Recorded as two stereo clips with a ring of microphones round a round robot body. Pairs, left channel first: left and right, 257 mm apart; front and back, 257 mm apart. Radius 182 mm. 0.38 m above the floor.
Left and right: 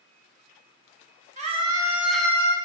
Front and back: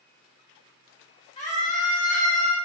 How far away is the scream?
About 1.0 m.